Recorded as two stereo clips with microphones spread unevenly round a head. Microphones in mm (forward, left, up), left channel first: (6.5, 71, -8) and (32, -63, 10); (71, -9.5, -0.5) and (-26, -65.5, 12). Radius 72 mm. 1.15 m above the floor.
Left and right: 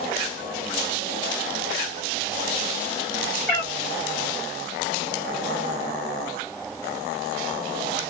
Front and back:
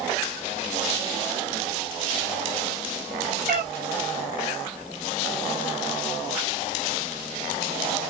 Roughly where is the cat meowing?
Behind.